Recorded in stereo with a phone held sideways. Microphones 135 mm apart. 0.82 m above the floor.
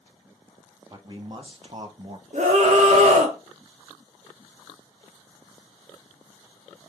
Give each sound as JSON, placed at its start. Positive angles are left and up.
{"t": 0.9, "sound": "a man speaking", "side_deg": -30, "distance_m": 1.4}
{"t": 2.3, "sound": "a scream", "side_deg": -60, "distance_m": 1.7}